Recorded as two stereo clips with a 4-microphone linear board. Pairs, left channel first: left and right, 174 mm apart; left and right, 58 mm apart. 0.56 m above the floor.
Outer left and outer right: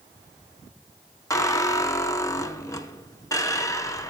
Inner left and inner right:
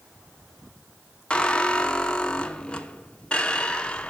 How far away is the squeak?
About 0.7 m.